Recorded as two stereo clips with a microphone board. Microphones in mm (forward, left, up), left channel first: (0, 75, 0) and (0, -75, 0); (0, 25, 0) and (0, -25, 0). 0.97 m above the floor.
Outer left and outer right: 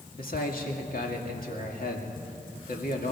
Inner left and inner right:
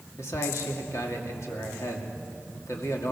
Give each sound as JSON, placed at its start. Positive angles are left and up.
{"t": 0.2, "sound": "a man speaking", "side_deg": 65, "distance_m": 2.5}